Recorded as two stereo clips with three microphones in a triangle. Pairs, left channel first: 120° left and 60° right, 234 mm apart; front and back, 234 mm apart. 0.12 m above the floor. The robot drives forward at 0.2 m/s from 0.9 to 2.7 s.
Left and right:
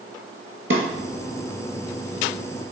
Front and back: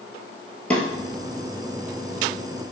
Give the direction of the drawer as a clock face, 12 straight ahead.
3 o'clock.